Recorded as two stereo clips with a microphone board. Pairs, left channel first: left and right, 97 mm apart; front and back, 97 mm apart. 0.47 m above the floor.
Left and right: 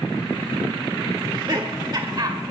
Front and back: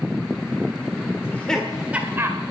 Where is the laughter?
55° right, 1.3 m; by 2.4 s 125° right, 1.9 m.